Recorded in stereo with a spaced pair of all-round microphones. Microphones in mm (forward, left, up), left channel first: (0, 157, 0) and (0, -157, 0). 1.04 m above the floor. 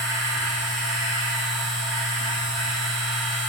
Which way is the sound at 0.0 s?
50° left (ahead or behind).